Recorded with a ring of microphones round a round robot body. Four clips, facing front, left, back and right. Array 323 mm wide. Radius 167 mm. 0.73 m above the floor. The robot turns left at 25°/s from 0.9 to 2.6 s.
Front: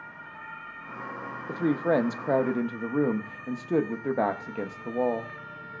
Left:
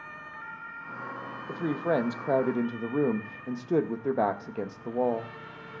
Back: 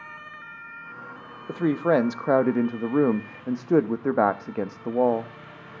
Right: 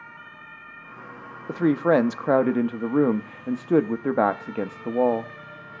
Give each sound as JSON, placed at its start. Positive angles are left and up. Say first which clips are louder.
{"t": 1.5, "sound": "a woman speaking", "louder": "right 8 dB, back 3 dB", "azimuth_deg": -110, "distance_m": 0.7}